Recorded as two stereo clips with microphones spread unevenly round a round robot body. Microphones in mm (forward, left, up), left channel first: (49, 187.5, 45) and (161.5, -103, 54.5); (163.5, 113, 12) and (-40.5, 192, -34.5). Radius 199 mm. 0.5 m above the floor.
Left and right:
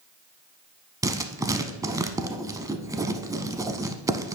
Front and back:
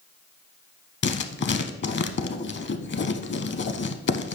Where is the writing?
10° left, 0.9 m.